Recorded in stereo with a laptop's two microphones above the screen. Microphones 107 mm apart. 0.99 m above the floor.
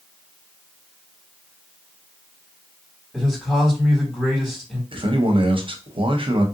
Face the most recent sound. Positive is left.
turn(degrees=-55)  # may be behind; listen again after turning